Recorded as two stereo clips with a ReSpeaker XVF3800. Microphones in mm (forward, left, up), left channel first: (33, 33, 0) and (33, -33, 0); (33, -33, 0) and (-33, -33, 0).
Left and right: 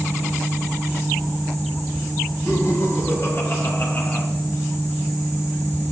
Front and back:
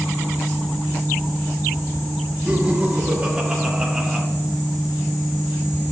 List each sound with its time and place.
2.5 s laughter: 110° left, 3 m; by 4.2 s 90° left, 1.6 m